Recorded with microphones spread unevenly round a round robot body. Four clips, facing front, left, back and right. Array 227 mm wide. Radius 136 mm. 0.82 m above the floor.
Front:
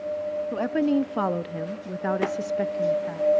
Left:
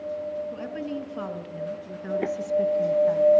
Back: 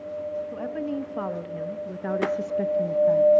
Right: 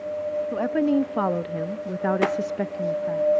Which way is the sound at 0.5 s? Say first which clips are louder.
Right 11 dB, front 7 dB; 40° right.